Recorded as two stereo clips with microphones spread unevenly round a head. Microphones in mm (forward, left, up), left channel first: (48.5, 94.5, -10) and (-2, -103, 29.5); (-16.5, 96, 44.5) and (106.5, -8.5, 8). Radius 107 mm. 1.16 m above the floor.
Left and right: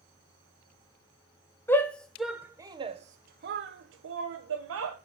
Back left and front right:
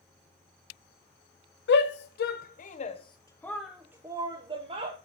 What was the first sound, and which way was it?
A shout, 150° left.